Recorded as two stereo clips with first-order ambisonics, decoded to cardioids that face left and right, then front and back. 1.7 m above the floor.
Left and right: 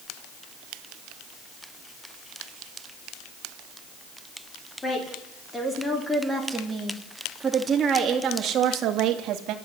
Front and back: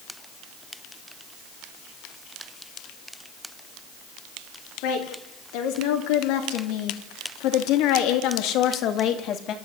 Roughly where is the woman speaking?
Ahead.